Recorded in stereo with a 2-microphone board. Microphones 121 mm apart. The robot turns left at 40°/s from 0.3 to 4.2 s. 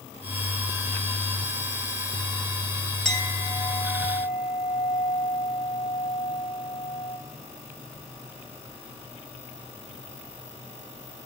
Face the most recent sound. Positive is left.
turn(degrees=130)